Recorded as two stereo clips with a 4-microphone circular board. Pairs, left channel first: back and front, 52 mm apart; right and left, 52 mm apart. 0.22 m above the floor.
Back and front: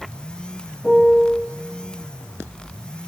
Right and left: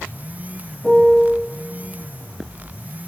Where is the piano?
130° right, 1.0 m.